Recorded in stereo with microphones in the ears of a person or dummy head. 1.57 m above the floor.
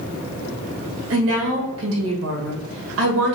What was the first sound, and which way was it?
A woman speaking, 75° right (ahead or behind).